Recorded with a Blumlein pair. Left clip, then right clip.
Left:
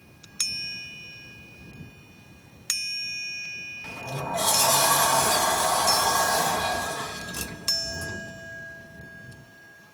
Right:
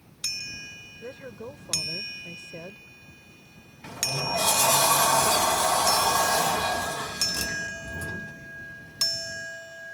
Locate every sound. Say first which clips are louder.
1.0 s a woman speaking: right 4 dB; 50° right
3.8 s a sliding door: right 7 dB; straight ahead